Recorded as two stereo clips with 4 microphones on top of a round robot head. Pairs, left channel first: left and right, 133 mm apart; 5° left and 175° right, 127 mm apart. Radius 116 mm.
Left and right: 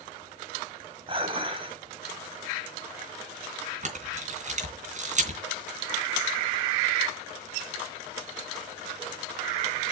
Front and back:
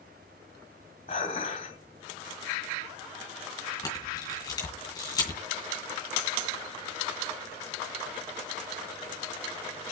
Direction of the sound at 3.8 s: 60° right.